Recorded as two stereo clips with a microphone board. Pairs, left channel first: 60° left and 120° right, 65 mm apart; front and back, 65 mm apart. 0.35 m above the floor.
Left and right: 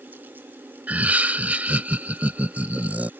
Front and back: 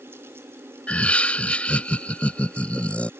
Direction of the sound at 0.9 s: 65° right.